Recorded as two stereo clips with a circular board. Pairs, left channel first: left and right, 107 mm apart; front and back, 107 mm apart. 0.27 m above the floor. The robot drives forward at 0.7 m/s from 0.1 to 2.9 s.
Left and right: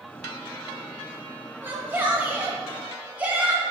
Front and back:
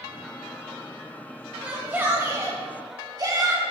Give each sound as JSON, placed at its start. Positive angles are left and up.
{"t": 1.6, "sound": "a shout", "azimuth_deg": -115, "distance_m": 1.5}